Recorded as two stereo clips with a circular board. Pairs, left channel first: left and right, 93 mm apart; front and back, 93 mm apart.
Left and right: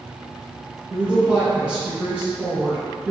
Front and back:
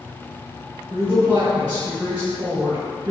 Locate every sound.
0.9 s a woman speaking: 170° right, 1.7 m